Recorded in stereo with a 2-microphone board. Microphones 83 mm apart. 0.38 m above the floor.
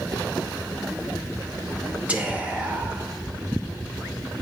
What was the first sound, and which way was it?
Whispering, 15° right (ahead or behind).